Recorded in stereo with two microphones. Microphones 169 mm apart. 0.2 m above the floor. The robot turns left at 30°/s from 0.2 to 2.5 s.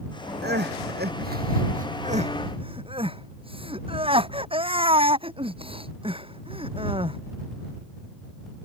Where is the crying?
80° right; by 7.2 s 35° right (ahead or behind).